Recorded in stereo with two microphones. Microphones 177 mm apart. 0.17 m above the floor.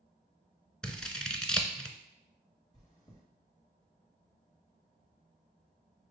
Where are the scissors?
5° left (ahead or behind), 0.6 m.